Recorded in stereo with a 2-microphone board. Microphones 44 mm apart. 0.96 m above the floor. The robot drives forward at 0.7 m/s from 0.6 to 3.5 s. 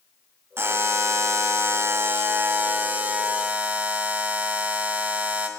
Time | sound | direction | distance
0.6 | a buzzer | 65° right (ahead or behind) | 1.2 m